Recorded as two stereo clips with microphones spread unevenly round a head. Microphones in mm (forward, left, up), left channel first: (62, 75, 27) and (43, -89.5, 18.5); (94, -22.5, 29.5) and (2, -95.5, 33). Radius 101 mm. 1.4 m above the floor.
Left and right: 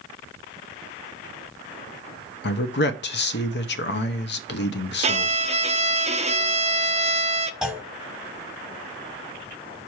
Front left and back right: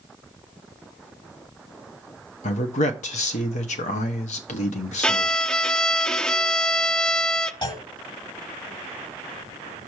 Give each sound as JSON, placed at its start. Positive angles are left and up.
{"t": 2.4, "sound": "a man speaking", "azimuth_deg": 70, "distance_m": 0.9}
{"t": 5.0, "sound": "a violin", "azimuth_deg": -45, "distance_m": 0.8}
{"t": 7.6, "sound": "a clunk", "azimuth_deg": -10, "distance_m": 1.8}